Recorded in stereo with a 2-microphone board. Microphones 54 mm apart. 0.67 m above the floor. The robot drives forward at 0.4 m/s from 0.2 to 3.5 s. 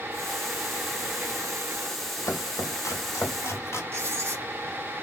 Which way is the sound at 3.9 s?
50° right (ahead or behind).